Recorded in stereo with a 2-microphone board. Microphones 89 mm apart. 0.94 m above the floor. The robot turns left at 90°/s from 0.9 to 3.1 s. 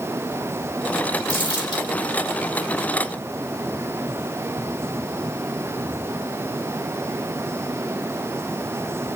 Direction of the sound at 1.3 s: 60° left (ahead or behind).